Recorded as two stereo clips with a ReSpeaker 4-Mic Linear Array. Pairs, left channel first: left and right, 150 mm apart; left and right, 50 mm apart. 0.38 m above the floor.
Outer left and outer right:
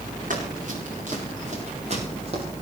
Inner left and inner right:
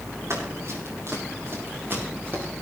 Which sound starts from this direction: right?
Running footsteps, at 0.3 s.